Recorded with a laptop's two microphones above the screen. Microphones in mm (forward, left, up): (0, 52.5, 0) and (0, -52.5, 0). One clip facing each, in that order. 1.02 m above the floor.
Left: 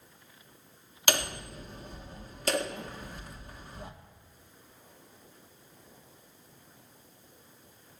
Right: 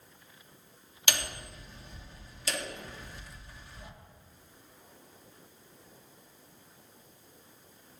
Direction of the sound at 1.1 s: 50° left (ahead or behind).